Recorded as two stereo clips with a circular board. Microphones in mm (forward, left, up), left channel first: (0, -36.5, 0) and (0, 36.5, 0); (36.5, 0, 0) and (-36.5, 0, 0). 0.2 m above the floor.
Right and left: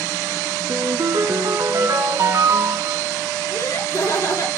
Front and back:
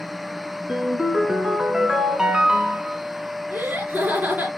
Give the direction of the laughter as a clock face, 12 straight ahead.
4 o'clock.